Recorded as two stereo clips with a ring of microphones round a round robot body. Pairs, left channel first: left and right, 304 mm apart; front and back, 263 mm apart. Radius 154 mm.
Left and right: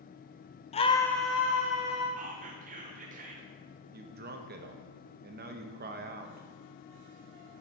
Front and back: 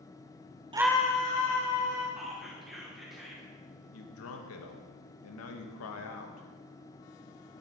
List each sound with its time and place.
0.7 s a scream: 130° left, 0.5 m; by 2.1 s 10° right, 1.5 m
2.2 s whispering: 90° right, 0.7 m
3.9 s a man speaking: 30° right, 0.8 m